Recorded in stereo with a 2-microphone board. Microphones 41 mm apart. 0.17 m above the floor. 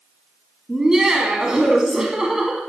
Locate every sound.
0.7 s laughter: 15° right (ahead or behind), 1.0 m